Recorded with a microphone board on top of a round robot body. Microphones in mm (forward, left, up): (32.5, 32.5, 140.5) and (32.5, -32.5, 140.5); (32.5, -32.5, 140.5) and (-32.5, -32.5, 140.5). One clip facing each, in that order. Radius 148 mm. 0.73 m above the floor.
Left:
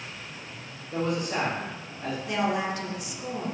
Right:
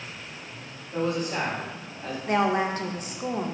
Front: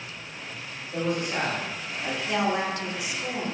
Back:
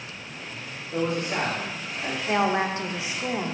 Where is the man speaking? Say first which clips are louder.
Right 1 dB, back 1 dB; 115° left, 1.2 m.